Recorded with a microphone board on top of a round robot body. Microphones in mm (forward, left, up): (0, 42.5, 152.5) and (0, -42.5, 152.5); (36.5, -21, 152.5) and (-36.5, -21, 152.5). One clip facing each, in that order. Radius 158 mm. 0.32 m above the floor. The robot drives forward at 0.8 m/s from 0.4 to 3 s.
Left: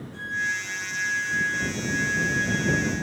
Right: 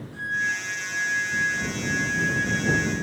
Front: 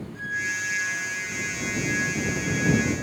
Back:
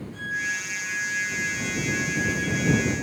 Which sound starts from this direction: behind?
A violin, at 0.1 s.